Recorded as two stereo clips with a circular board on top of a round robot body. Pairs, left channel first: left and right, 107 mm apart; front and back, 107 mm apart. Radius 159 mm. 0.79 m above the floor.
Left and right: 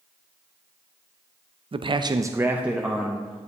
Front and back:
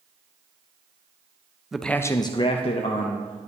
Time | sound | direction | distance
1.7 | a man speaking | 95° right | 0.5 m